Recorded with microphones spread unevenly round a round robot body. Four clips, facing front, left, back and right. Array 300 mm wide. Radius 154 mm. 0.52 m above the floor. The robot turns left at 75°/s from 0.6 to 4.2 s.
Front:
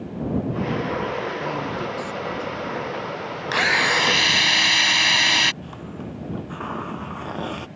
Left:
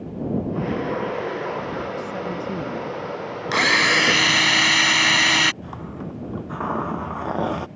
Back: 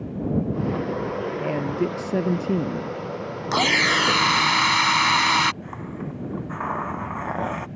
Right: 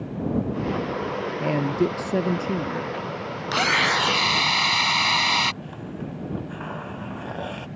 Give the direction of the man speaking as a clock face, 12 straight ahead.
3 o'clock.